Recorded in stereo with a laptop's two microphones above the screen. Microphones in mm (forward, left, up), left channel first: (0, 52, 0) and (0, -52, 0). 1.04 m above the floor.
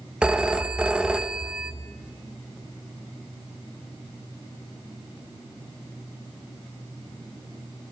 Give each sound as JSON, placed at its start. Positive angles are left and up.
{"t": 0.2, "sound": "a phone ringing", "side_deg": -10, "distance_m": 0.6}